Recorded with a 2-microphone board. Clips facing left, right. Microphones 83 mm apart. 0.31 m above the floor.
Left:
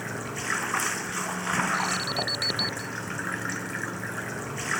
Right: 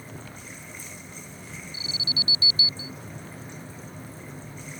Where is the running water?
80° left.